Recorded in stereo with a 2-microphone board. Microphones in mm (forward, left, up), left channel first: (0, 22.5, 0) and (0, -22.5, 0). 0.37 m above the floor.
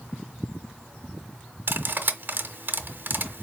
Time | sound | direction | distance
1.7 | cutlery clinking | 50° right (ahead or behind) | 0.6 m